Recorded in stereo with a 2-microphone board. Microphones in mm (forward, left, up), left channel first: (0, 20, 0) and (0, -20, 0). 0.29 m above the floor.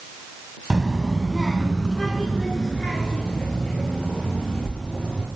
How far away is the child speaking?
About 1.2 m.